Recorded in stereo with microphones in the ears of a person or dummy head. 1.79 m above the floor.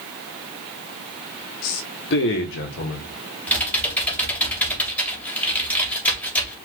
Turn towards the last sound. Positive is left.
turn(degrees=10)  # may be behind; listen again after turning